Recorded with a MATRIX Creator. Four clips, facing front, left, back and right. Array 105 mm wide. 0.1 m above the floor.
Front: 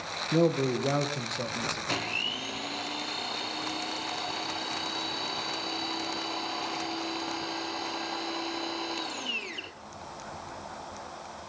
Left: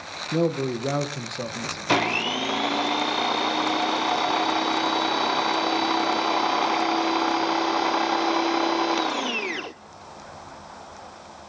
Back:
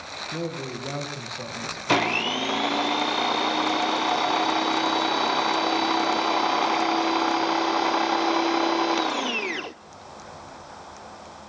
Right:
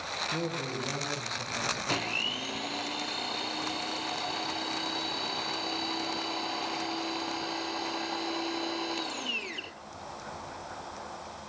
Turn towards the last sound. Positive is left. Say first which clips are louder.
# left 11 dB, back 11 dB
turn(degrees=135)